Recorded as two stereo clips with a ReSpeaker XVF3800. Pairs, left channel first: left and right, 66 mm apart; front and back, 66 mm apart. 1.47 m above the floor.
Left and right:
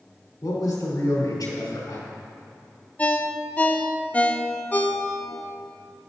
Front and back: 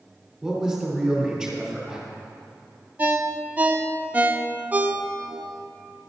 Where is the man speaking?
95° left, 4 m.